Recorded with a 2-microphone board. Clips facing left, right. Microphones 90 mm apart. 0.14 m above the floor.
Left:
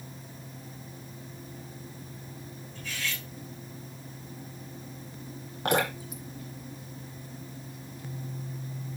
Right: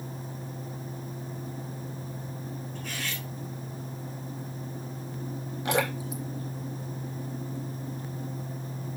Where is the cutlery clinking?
55° right (ahead or behind), 4.5 m.